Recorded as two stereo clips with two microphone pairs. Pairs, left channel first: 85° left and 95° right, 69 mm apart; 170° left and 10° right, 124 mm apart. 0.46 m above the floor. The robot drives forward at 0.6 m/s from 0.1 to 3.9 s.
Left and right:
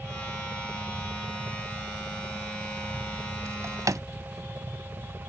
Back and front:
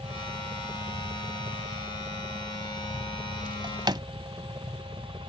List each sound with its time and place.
0.0 s a helicopter: 55° right; by 5.3 s 60° right
3.5 s a drawer: 55° right; by 4.0 s 65° right